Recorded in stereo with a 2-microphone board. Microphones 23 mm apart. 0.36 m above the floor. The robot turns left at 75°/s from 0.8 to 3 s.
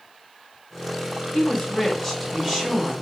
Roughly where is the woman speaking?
Ahead left.